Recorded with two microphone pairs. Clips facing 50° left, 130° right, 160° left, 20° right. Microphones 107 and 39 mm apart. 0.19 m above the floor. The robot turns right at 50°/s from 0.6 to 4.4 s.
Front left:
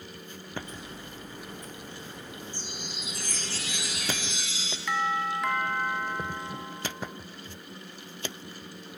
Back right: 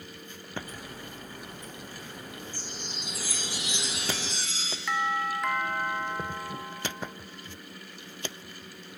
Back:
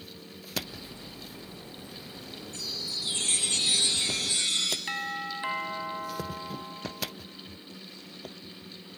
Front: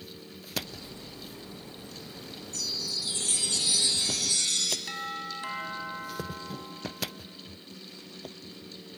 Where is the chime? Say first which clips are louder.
Even, front 2 dB; 110° left, 1.9 m; by 4.8 s 155° right, 1.9 m.